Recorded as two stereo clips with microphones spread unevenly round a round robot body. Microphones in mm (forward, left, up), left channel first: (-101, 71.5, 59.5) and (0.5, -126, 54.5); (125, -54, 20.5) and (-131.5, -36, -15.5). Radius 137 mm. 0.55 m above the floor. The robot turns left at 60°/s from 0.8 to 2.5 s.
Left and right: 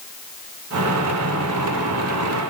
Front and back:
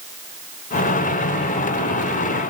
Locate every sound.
Only background noise.